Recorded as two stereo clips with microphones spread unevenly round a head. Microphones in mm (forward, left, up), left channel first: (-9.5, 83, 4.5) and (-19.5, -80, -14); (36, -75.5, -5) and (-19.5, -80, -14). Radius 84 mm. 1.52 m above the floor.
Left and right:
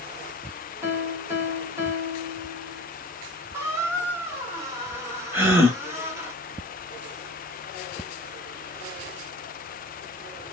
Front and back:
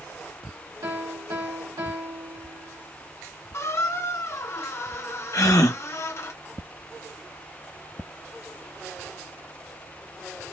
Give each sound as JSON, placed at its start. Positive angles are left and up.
{"t": 0.8, "sound": "a piano", "azimuth_deg": -170, "distance_m": 2.5}
{"t": 3.5, "sound": "a squeak", "azimuth_deg": -15, "distance_m": 0.7}
{"t": 5.3, "sound": "a gasp", "azimuth_deg": -15, "distance_m": 1.0}